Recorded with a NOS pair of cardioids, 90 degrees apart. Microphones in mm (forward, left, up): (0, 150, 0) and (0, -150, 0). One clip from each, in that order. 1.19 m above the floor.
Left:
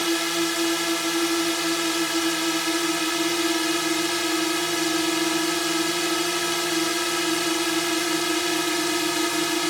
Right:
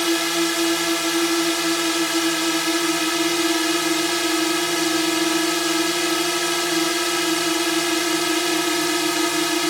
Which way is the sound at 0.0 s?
25° right.